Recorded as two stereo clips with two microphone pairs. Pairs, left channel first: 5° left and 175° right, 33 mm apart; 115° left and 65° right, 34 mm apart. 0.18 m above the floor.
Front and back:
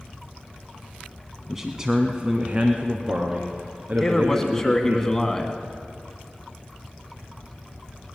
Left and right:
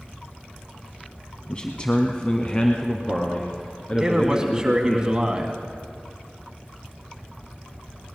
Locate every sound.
1.5 s a man speaking: 115° left, 1.1 m; by 5.0 s 170° left, 2.5 m
4.0 s a man speaking: 40° right, 1.7 m